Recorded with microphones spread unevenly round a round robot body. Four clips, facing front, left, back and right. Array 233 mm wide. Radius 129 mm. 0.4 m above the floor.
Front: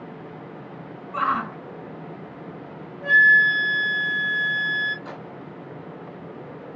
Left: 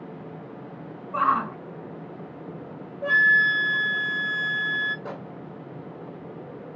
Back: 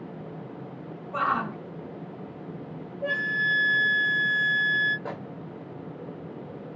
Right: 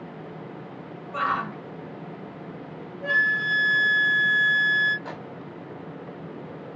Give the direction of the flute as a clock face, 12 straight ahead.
8 o'clock.